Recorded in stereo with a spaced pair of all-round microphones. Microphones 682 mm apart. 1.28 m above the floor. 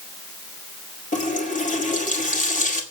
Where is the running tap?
10° left (ahead or behind), 2 m.